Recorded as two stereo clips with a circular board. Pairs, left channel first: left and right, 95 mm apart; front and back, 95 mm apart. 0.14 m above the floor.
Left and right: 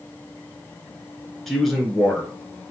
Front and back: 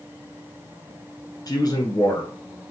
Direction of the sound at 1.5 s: 5° left.